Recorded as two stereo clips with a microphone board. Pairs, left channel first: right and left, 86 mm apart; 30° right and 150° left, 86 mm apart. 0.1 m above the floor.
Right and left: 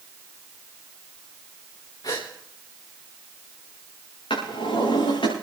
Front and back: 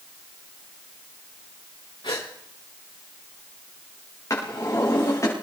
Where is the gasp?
50° right, 5 m.